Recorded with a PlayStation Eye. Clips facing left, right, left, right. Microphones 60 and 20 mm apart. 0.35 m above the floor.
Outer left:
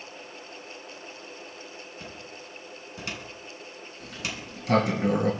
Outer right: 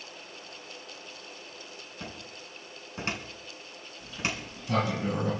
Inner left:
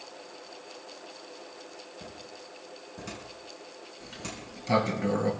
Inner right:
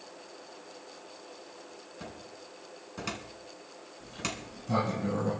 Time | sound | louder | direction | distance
2.0 | a cupboard door | outer left 1 dB, inner left 1 dB | 40° right (ahead or behind) | 2.5 m
4.0 | a sliding door | outer right 2 dB, inner right 4 dB | 85° left | 3.5 m